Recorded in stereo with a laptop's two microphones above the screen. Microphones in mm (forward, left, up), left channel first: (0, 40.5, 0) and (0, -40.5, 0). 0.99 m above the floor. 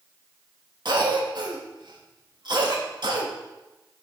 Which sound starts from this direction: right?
A cough, at 0.8 s.